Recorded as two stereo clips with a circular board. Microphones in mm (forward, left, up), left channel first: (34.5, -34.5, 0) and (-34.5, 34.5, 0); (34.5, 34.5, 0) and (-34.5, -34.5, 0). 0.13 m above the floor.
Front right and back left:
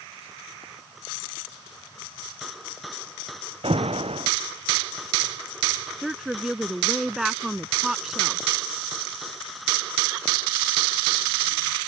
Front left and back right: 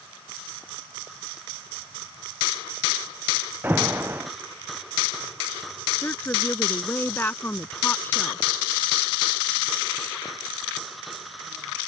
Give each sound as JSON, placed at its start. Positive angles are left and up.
{"t": 3.6, "sound": "an alarm", "azimuth_deg": 155}
{"t": 6.0, "sound": "a woman speaking", "azimuth_deg": 55}